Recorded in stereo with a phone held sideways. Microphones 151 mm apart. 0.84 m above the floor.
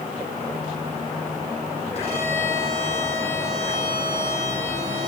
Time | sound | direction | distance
1.9 | a violin | 50° left (ahead or behind) | 7.5 m